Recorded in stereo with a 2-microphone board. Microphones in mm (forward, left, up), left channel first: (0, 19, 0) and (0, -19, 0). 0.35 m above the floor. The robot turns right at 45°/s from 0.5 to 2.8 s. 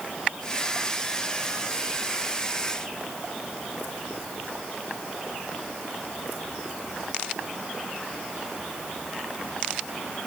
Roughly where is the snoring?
No snoring in this recording.